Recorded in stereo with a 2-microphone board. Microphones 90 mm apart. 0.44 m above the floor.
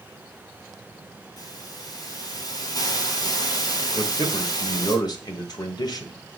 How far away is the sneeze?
I don't hear a sneeze.